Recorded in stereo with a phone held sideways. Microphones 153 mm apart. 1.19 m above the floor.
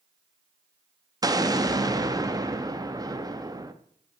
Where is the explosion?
25° right (ahead or behind), 0.9 m.